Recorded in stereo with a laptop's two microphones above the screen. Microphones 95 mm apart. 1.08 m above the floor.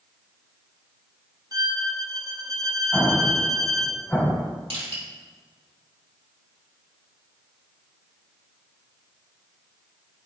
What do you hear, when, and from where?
1.5 s a violin: 40° right (ahead or behind), 0.9 m
2.9 s an explosion: 15° left (ahead or behind), 1.3 m
4.7 s crushing: 80° right, 3 m